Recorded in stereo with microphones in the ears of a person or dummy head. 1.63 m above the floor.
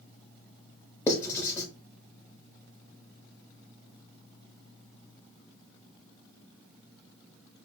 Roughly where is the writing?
Centre.